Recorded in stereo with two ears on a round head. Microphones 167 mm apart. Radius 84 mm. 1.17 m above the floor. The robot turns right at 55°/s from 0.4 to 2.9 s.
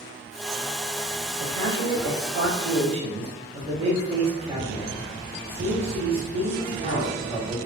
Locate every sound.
1.4 s a man speaking: 120° right, 0.9 m; by 7.6 s 40° right, 0.9 m